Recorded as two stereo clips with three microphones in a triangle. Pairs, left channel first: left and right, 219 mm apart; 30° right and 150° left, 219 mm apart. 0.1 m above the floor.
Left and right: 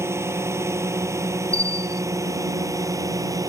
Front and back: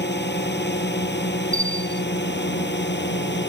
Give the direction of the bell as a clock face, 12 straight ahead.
9 o'clock.